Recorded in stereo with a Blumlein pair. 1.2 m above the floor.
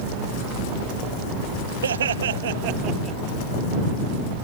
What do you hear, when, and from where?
1.8 s laughter: 65° right; by 3.2 s 10° right